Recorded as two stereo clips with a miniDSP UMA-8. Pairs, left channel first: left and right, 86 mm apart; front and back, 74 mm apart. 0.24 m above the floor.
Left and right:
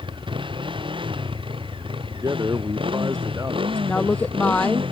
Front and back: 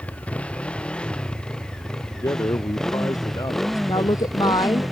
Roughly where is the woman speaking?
Ahead.